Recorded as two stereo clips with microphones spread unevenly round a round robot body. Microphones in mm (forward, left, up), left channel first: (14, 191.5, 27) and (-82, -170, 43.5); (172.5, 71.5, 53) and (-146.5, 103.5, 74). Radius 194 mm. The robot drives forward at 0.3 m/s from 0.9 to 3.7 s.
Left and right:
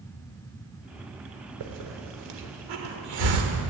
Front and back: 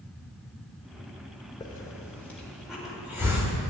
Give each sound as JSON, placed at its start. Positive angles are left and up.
{"t": 1.6, "sound": "a hiss", "azimuth_deg": -80, "distance_m": 1.5}